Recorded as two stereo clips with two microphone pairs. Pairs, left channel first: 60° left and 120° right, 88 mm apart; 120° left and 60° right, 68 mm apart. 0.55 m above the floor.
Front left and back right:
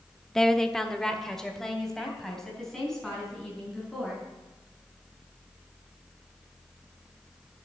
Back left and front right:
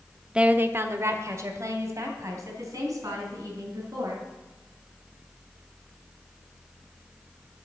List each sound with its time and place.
0.3 s a woman speaking: 10° right, 0.6 m; by 4.2 s 25° right, 6 m